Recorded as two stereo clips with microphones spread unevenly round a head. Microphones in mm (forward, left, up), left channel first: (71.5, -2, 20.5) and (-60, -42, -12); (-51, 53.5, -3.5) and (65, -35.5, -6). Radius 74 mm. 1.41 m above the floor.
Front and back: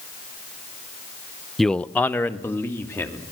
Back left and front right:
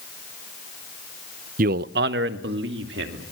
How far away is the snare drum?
I don't hear a snare drum.